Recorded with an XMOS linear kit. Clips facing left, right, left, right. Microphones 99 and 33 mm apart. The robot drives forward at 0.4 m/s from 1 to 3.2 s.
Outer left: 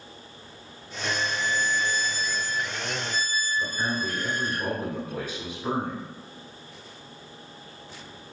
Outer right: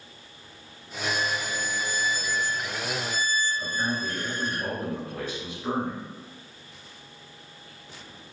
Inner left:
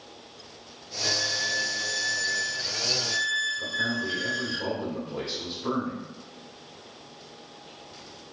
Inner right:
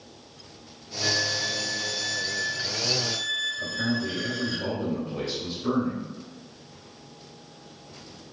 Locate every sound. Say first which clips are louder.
1.0 s a violin: outer left 1 dB, inner right 1 dB; 50° right (ahead or behind), 0.9 m; by 4.6 s 25° right (ahead or behind), 1.6 m
3.6 s a man speaking: outer left 1 dB, even; 15° left (ahead or behind), 1.9 m